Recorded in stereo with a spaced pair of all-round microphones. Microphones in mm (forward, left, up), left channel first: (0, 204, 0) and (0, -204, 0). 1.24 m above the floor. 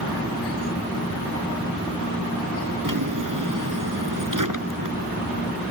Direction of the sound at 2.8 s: 50° right (ahead or behind).